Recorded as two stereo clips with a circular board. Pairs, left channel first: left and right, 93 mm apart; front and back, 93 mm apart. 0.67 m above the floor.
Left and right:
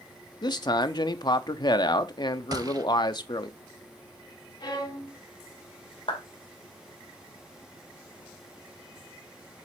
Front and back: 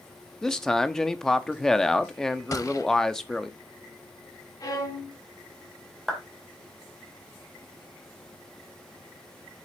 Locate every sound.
0.4 s a man speaking: 80° left, 0.7 m
2.5 s a gunshot: 50° right, 0.7 m
4.6 s a violin: 50° left, 2.5 m
6.1 s a clap: 90° left, 2 m